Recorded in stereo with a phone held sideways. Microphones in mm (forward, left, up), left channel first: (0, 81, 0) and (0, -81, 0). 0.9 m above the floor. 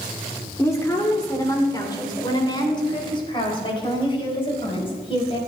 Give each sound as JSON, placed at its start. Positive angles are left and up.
{"t": 0.6, "sound": "a woman speaking", "side_deg": 15, "distance_m": 2.0}